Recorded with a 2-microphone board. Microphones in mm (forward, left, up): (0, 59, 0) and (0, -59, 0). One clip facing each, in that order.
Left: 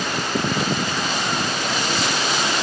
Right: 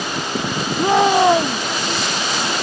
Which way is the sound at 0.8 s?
85° right.